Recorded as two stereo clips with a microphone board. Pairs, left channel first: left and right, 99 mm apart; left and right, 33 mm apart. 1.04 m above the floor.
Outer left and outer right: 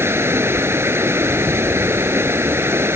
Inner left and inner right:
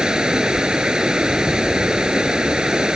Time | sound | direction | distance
0.0 | running water | 25° right (ahead or behind) | ?